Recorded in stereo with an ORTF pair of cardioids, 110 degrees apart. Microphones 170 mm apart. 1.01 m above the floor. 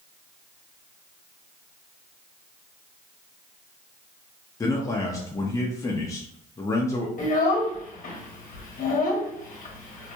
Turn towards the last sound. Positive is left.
turn(degrees=50)